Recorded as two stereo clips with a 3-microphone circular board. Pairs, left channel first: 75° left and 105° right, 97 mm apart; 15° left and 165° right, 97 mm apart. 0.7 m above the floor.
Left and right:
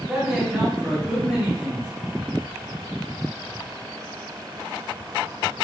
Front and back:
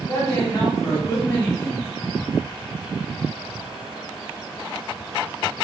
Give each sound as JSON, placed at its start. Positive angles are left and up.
{"t": 0.1, "sound": "a man speaking", "azimuth_deg": -30, "distance_m": 1.7}